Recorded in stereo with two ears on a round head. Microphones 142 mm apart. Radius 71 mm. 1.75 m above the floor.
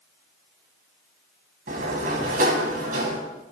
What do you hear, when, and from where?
1.7 s a sliding door: 55° right (ahead or behind), 4.5 m